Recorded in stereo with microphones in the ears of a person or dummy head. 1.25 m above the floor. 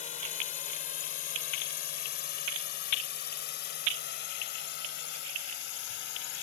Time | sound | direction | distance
0.0 | a drone | 40° left (ahead or behind) | ?